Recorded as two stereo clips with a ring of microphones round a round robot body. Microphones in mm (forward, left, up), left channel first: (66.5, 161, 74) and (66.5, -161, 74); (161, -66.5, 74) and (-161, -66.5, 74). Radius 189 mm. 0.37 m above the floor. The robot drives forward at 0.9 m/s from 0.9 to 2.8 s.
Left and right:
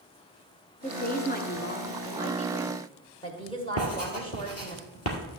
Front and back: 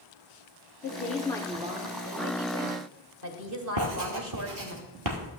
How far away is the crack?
No crack in this recording.